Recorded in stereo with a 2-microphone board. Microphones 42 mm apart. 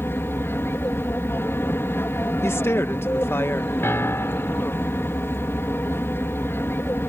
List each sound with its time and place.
0.0 s an aircraft: 65° left (ahead or behind)
2.4 s a woman speaking: 70° left (ahead or behind)
3.8 s a piano: 75° left (ahead or behind)